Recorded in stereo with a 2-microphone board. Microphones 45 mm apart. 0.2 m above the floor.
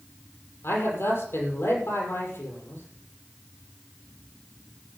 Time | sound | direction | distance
0.6 | a man speaking | 70° left (ahead or behind) | 6.5 m